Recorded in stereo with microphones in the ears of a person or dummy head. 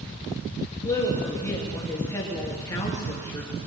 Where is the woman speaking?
15° left (ahead or behind), 3.5 m.